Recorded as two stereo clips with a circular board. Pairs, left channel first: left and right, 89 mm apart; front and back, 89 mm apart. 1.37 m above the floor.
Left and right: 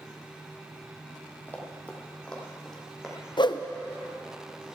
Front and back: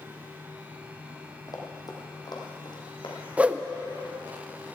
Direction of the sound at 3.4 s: 105° left.